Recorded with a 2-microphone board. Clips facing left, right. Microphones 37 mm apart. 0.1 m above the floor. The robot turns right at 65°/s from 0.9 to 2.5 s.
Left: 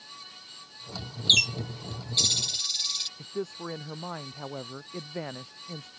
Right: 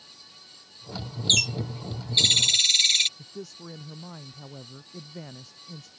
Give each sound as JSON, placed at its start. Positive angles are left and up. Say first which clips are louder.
{"t": 1.3, "sound": "a bird", "louder": "left 1 dB", "azimuth_deg": 165}
{"t": 3.2, "sound": "a man speaking", "louder": "left 6 dB", "side_deg": 35}